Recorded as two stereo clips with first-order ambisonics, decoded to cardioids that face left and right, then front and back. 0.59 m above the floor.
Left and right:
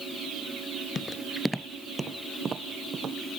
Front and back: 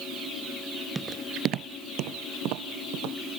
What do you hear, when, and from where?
0.9 s footsteps: 115° left; by 3.2 s 155° right